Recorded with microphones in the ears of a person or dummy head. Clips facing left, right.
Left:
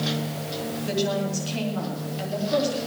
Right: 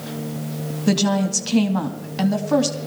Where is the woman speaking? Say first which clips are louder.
Right 7 dB; 70° right (ahead or behind), 2 m.